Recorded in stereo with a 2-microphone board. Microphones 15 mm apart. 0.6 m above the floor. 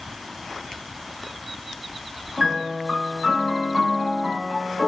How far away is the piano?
About 0.7 m.